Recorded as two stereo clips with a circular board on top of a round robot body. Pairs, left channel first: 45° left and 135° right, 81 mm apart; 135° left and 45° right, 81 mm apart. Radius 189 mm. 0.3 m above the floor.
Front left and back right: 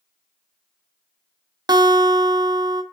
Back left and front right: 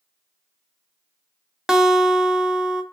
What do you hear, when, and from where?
1.7 s a guitar: 125° right, 0.6 m